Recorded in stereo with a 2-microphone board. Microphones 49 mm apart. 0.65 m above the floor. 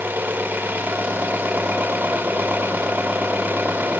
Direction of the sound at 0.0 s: 35° right (ahead or behind).